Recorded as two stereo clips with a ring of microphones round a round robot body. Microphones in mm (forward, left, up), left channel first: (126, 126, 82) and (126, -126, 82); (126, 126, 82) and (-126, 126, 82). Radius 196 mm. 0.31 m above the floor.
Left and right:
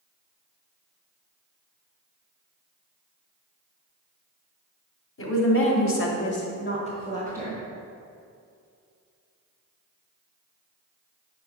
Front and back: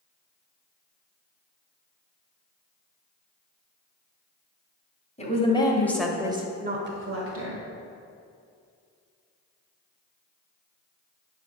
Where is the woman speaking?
60° left, 2.5 m; by 7.6 s straight behind, 2 m.